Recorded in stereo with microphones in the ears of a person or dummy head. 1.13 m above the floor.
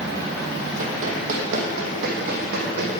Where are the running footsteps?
45° right (ahead or behind), 2.5 m; by 2.9 s 60° right (ahead or behind), 3.5 m.